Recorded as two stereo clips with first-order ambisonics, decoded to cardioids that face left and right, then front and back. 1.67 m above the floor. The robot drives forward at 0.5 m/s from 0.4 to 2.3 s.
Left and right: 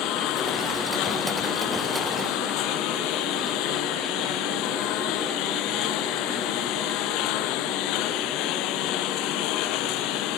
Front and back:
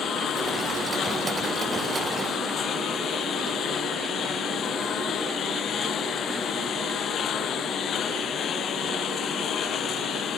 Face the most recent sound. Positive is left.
turn(degrees=60)